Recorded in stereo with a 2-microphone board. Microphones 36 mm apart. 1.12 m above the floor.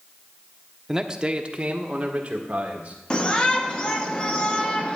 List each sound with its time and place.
0.9 s a man speaking: 15° right (ahead or behind), 0.6 m; by 3.0 s 35° right (ahead or behind), 2.5 m
3.1 s a shout: 20° left (ahead or behind), 1.0 m